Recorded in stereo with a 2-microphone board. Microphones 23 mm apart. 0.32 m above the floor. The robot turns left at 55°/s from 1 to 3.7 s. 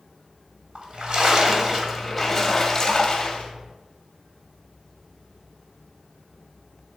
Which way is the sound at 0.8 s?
120° right.